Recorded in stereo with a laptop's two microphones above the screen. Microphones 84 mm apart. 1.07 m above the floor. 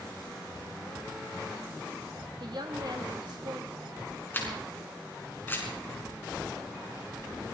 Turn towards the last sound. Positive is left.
turn(degrees=25)  # may be behind; listen again after turning